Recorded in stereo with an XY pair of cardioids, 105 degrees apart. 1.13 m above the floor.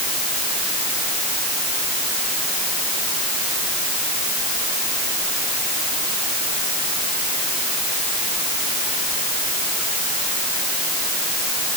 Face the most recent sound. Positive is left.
No sound to turn to.